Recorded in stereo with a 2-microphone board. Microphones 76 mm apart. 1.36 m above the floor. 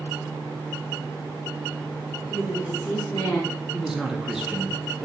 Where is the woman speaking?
10° left (ahead or behind), 1.8 m; by 3.5 s 45° left (ahead or behind), 2 m.